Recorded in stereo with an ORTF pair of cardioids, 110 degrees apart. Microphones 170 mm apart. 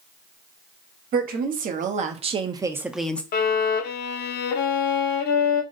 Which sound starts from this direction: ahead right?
A woman speaking, at 1.1 s.